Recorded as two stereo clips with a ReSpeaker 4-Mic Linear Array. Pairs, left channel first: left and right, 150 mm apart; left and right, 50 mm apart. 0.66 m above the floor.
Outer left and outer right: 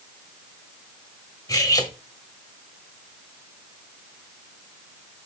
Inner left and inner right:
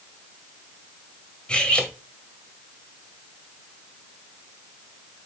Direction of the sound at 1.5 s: 25° left (ahead or behind).